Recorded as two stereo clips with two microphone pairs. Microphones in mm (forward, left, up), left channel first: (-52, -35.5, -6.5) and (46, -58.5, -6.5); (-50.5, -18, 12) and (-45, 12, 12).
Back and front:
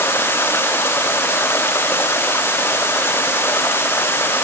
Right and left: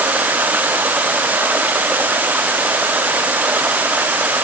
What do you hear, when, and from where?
0.0 s running water: 100° left